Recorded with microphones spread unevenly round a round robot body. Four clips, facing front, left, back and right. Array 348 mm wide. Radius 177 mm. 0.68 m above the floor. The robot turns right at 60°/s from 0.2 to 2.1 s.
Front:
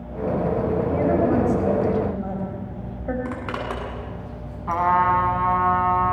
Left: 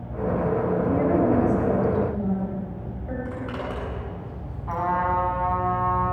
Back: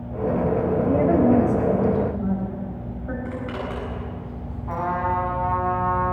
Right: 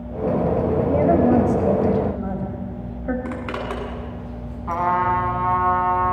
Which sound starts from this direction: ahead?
A trumpet, at 4.7 s.